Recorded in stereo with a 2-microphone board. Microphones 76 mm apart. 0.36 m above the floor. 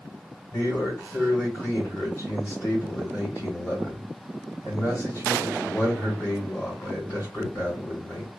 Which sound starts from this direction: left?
A man speaking, at 0.5 s.